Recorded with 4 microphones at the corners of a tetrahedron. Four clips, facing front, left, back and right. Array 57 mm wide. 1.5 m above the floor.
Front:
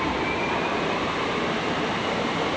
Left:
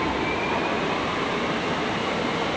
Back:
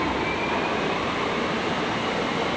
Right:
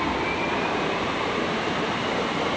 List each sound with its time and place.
Only background noise.